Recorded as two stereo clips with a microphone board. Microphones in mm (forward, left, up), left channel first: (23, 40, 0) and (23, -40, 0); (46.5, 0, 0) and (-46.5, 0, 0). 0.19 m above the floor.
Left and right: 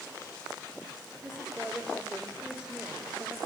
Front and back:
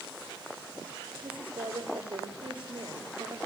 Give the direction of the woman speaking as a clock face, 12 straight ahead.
6 o'clock.